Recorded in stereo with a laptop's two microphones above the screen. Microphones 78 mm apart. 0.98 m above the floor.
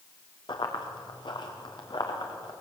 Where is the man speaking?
No man speaking in this recording.